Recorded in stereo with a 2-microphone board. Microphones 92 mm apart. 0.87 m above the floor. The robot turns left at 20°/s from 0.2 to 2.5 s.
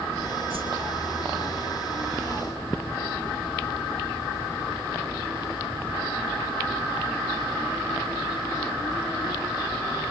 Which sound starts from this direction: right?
A whoosh, at 0.5 s.